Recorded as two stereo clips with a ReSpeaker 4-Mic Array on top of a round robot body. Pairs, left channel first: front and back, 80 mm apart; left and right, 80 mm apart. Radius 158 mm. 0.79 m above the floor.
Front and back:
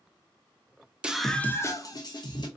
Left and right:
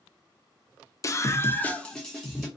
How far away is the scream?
About 0.6 m.